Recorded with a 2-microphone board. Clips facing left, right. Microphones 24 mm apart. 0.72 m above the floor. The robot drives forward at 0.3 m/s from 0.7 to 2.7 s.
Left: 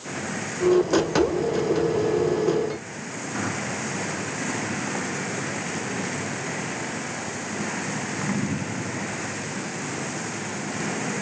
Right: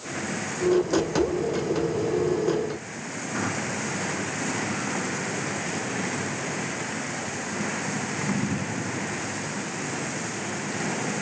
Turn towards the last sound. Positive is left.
No sound to turn to.